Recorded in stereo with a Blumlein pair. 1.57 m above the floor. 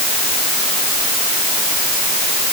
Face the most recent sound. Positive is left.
No sound to turn to.